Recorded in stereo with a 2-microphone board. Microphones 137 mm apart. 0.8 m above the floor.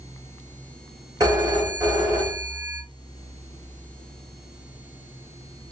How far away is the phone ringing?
About 1.5 m.